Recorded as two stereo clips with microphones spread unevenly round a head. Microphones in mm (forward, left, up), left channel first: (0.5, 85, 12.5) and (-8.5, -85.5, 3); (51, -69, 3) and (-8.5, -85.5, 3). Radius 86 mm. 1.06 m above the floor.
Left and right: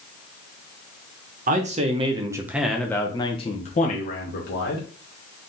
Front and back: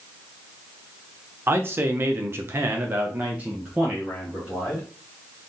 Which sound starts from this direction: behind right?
A man speaking, at 1.5 s.